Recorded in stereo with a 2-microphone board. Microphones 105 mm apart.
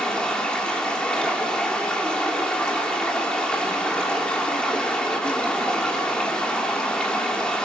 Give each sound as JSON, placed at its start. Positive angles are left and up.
{"t": 0.0, "sound": "running water", "side_deg": 10, "distance_m": 3.0}